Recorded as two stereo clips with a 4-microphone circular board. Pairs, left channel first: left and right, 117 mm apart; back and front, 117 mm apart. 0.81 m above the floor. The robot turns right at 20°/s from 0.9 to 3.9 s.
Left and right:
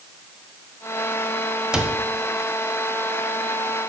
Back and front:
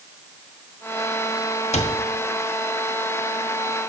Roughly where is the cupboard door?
Behind.